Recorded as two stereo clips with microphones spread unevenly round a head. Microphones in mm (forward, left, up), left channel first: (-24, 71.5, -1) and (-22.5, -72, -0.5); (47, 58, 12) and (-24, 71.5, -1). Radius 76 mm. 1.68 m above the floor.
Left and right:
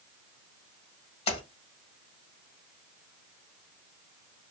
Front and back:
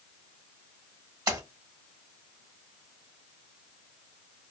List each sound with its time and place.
1.3 s a splash: 140° left, 1.2 m